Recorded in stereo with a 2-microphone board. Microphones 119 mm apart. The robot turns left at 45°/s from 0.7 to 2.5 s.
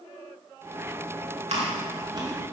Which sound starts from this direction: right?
Chewing, at 1.5 s.